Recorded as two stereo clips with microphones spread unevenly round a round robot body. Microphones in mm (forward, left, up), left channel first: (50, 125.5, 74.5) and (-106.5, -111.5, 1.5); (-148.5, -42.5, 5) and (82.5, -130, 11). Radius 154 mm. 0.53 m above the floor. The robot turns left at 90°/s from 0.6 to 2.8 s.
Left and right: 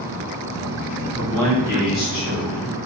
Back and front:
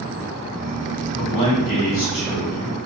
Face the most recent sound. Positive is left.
turn(degrees=25)